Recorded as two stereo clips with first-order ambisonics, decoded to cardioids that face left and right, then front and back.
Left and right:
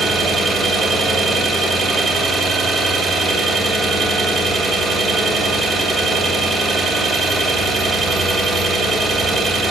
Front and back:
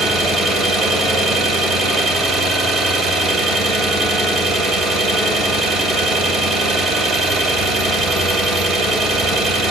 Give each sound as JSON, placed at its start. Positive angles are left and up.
{"t": 0.0, "sound": "an engine running", "azimuth_deg": -175, "distance_m": 1.9}